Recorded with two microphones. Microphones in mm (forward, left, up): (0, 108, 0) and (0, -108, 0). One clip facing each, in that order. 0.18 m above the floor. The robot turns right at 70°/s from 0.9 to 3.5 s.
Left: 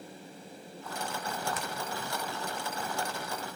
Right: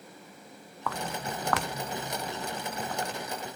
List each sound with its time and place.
0.9 s footsteps: 80° right, 0.9 m; by 3.1 s 35° right (ahead or behind), 1.2 m